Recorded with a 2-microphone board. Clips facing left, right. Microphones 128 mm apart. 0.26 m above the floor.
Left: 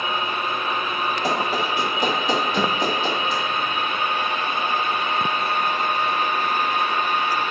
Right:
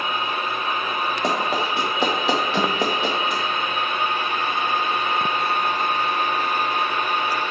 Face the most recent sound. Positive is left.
turn(degrees=-30)  # may be behind; listen again after turning